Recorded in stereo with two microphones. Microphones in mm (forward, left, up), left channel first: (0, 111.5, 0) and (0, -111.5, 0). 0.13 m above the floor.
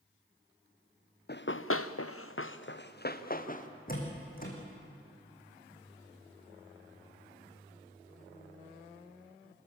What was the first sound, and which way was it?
Running footsteps, 45° left (ahead or behind).